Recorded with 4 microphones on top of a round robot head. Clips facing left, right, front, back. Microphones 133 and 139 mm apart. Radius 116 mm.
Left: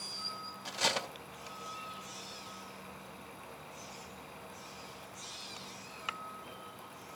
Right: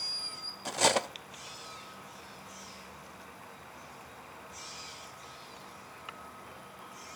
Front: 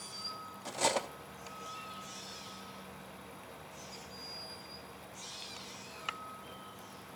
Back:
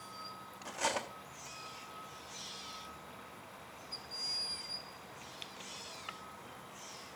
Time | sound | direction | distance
0.7 | cutlery clinking | 55° right | 0.7 m